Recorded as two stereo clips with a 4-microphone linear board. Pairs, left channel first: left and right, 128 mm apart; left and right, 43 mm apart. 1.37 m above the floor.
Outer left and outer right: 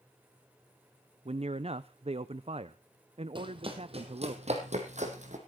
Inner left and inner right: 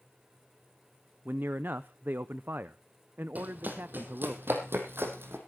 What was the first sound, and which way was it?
A man speaking, 50° right (ahead or behind).